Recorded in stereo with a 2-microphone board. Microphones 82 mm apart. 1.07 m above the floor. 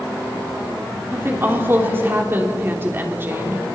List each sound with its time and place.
1.1 s a woman speaking: 30° right (ahead or behind), 3.5 m